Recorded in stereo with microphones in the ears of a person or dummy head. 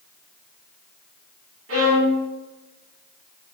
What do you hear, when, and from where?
1.7 s a violin: 75° right (ahead or behind), 1.4 m